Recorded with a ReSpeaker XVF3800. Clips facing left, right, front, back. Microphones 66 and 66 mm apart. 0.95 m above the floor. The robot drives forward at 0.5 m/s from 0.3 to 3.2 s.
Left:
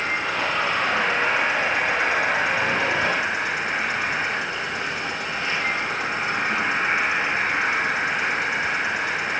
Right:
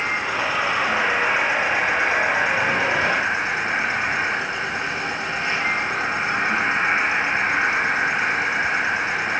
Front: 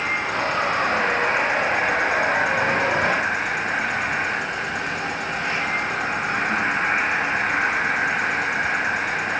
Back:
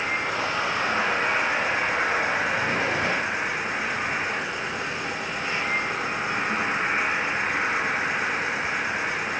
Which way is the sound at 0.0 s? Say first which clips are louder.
Right 1 dB, front 3 dB; 20° right.